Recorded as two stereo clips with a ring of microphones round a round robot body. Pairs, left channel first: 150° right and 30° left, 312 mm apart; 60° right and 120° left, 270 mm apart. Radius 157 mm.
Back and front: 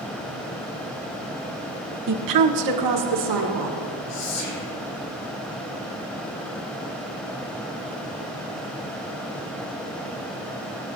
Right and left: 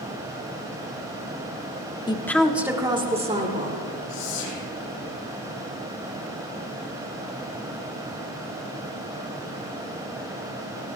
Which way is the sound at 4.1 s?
100° right.